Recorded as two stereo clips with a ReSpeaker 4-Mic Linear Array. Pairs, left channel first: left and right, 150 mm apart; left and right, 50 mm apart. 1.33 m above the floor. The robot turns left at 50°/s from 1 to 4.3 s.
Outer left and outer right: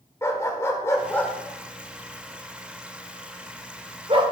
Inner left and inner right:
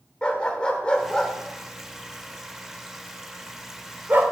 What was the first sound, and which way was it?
A dog barking, 20° left (ahead or behind).